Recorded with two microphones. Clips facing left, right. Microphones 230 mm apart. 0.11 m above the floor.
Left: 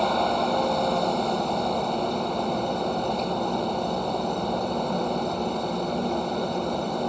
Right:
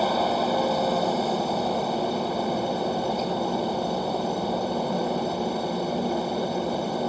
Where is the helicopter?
5° right (ahead or behind).